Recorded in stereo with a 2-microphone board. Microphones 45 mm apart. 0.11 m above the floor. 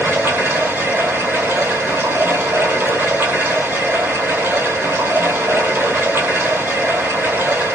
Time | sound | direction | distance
0.0 | running water | 60° right (ahead or behind) | 1.4 m